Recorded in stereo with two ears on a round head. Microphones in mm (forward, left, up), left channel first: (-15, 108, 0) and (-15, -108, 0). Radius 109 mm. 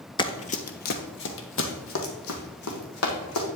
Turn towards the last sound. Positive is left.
turn(degrees=65)  # may be behind; listen again after turning